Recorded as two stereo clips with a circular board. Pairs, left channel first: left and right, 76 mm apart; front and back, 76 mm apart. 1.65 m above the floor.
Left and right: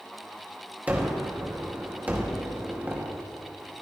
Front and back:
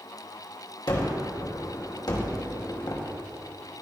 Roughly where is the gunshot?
Ahead right.